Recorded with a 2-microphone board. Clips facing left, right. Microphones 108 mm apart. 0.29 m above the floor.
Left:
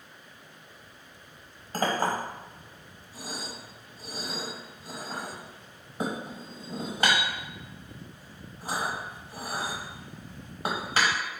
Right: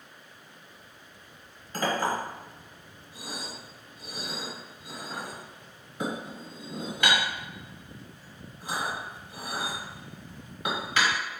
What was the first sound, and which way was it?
A clink, 35° left (ahead or behind).